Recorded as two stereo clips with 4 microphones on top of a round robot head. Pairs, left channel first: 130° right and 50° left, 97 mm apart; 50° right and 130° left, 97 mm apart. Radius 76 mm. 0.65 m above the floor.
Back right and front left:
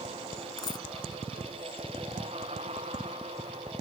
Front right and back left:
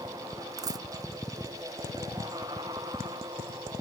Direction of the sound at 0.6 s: Straight behind.